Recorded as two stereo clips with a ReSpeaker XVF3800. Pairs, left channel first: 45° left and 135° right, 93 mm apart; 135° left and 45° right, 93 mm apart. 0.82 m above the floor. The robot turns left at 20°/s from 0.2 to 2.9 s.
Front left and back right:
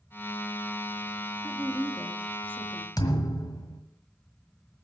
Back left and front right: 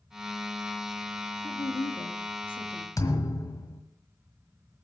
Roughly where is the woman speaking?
Behind left.